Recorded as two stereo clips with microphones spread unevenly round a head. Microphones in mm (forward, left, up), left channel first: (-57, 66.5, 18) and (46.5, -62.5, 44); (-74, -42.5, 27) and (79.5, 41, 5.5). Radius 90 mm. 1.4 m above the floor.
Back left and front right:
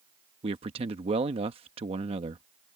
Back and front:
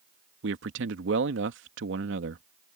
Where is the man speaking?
5° left.